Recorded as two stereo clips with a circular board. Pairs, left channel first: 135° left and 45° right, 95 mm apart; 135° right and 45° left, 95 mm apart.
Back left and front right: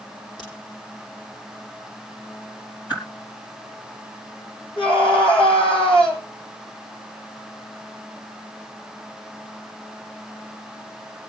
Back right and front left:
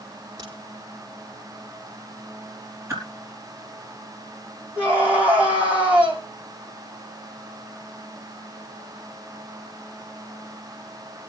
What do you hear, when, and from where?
0.4 s a crack: 95° left, 7.5 m
2.9 s a whoosh: 100° left, 4.5 m
4.8 s a scream: 120° left, 7 m